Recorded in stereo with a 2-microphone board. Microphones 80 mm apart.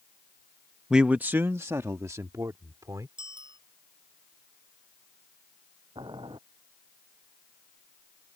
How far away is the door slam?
No door slam in this recording.